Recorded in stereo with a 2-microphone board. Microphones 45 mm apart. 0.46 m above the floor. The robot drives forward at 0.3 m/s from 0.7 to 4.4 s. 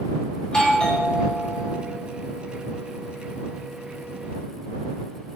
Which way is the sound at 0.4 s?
20° left (ahead or behind).